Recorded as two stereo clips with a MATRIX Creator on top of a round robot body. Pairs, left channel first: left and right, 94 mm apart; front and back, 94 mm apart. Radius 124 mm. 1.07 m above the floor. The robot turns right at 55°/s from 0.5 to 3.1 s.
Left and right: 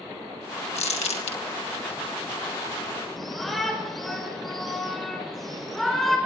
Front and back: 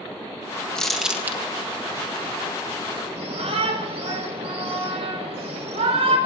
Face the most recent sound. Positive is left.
turn(degrees=180)